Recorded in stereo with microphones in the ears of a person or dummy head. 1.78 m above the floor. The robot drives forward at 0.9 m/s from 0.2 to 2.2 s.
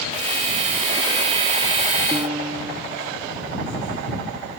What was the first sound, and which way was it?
A piano, 15° right (ahead or behind).